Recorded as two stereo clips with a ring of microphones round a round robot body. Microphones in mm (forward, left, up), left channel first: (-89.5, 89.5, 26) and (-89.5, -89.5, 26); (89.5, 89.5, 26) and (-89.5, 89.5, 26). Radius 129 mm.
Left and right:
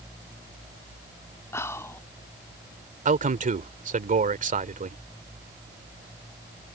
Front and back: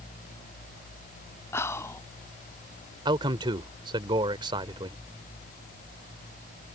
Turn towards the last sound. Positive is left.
turn(degrees=-115)